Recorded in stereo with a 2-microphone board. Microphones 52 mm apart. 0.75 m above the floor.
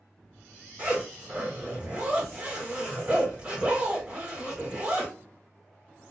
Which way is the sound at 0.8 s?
20° right (ahead or behind).